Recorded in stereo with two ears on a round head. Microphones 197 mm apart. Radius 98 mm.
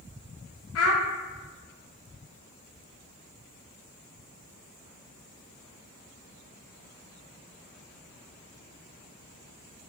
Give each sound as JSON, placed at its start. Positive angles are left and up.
{"t": 0.8, "sound": "a child speaking", "side_deg": 70, "distance_m": 0.5}